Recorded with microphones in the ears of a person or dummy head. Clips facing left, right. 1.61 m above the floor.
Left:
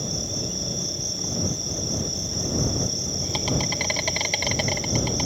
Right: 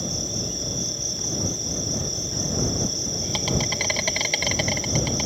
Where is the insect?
5° right (ahead or behind).